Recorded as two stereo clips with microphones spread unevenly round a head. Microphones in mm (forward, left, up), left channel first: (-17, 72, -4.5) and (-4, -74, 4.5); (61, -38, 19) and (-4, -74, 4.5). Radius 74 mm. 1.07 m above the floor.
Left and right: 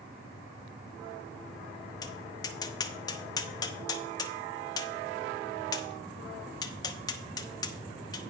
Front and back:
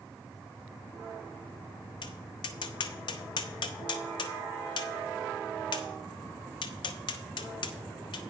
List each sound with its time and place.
2.0 s tapping: 30° left, 0.7 m